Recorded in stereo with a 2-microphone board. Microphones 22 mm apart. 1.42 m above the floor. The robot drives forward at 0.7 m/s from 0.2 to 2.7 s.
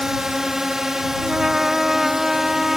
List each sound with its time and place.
0.0 s a drone: 20° right (ahead or behind)
1.2 s a trumpet: 20° right (ahead or behind); by 2.8 s 10° right (ahead or behind)